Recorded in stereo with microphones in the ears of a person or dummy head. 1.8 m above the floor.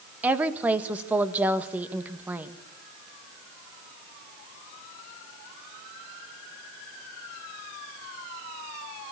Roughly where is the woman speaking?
Centre.